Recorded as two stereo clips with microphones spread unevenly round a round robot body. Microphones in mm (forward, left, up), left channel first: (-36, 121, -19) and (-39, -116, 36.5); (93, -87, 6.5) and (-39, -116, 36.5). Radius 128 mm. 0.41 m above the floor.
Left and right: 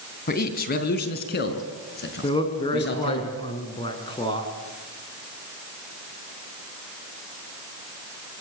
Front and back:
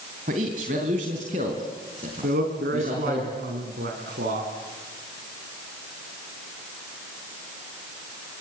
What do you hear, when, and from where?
0.3 s a man speaking: 140° left, 3 m; by 3.2 s 130° left, 6 m
2.2 s a man speaking: 160° left, 4.5 m